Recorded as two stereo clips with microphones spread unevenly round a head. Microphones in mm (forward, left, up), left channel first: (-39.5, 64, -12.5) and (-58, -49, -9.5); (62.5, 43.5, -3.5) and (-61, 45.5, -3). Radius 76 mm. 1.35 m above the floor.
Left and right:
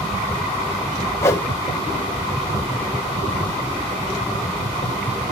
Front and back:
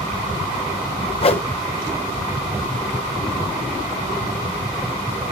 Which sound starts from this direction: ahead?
A whoosh, at 1.2 s.